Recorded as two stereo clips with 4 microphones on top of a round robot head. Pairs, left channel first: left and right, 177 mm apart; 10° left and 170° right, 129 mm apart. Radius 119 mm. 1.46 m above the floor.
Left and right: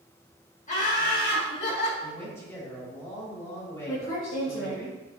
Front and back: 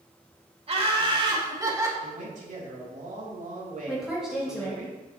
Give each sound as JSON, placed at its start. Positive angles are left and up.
{"t": 0.7, "sound": "laughter", "azimuth_deg": 145, "distance_m": 2.0}
{"t": 2.0, "sound": "a man speaking", "azimuth_deg": 165, "distance_m": 2.5}
{"t": 3.9, "sound": "a woman speaking", "azimuth_deg": 100, "distance_m": 2.0}